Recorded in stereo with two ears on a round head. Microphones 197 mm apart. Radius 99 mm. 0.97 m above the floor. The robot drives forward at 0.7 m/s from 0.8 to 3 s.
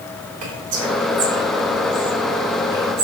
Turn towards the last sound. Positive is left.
turn(degrees=-60)  # may be behind; listen again after turning